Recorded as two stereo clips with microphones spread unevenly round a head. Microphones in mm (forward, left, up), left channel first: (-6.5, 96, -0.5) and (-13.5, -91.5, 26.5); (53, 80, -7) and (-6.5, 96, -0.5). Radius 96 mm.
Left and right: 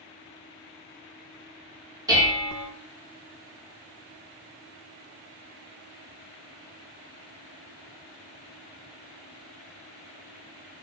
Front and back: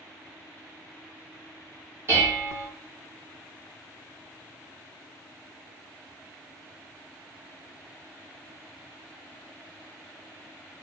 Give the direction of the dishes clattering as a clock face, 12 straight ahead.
5 o'clock.